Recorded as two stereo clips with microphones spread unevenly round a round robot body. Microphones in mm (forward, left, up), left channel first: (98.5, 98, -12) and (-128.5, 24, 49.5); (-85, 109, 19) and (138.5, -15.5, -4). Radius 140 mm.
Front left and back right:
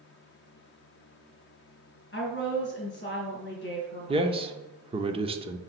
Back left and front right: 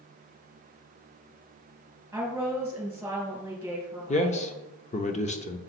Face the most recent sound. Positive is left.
turn(degrees=130)